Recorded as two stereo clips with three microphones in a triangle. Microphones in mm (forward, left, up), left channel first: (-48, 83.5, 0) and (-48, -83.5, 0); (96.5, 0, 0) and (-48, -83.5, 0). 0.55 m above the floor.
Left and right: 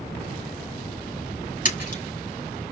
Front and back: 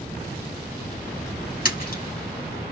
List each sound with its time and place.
1.6 s a splash: 55° left, 4 m